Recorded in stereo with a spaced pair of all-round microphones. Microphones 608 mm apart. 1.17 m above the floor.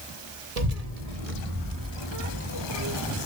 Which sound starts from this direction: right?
A child speaking, at 0.6 s.